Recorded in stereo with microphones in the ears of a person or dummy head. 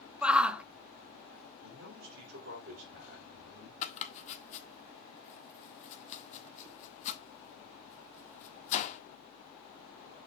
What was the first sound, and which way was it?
A shout, 10° right (ahead or behind).